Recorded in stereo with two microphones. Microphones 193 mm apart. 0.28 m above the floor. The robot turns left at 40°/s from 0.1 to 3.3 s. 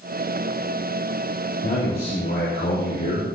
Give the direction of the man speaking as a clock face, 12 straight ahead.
7 o'clock.